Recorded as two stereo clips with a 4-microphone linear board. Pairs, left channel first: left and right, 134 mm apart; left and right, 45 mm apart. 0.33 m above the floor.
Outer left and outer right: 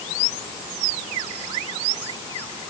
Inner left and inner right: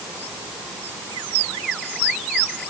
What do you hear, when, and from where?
Only background noise.